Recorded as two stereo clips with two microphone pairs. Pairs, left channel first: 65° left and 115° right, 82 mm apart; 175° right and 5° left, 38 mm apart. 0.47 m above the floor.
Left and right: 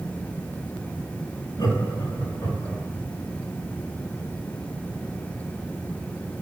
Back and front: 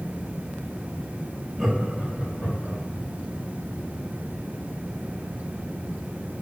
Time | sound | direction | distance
1.6 | laughter | 95° left | 3 m